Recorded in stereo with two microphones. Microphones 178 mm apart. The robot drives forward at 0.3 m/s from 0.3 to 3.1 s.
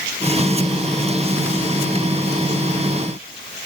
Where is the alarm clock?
I don't hear an alarm clock.